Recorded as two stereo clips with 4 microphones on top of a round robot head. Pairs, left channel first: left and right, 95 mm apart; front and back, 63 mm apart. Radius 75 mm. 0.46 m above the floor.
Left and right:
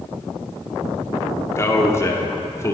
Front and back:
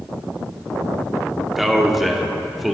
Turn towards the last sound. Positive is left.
turn(degrees=90)